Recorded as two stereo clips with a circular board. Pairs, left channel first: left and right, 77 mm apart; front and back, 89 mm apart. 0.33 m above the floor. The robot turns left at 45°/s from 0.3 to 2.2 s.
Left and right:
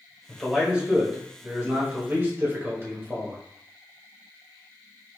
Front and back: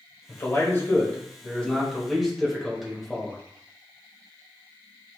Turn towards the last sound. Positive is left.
turn(degrees=-95)